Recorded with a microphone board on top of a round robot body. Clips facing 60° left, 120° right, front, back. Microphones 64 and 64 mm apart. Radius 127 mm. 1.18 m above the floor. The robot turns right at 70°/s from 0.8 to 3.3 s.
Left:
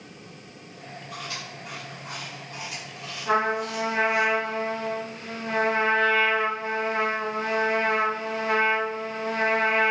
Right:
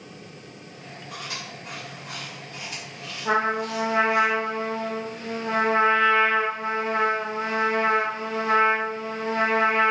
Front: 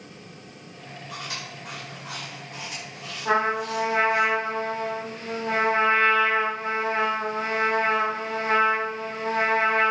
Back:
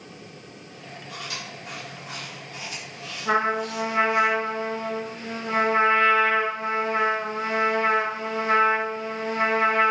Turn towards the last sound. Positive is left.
turn(degrees=-50)